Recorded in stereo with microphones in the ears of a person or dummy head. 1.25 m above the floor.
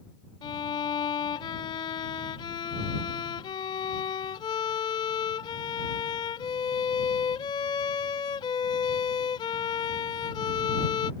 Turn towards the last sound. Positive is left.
turn(degrees=30)  # may be behind; listen again after turning